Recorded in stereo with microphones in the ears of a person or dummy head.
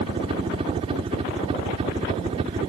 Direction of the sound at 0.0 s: 25° right (ahead or behind).